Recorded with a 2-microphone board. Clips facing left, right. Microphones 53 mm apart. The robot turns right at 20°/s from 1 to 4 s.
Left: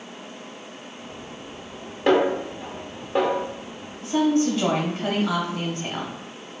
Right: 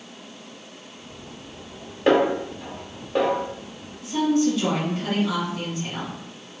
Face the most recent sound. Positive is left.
turn(degrees=50)  # may be behind; listen again after turning